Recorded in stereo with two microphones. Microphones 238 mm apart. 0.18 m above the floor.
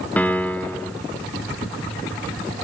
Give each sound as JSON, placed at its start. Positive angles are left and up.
{"t": 0.2, "sound": "a piano", "side_deg": 5, "distance_m": 0.7}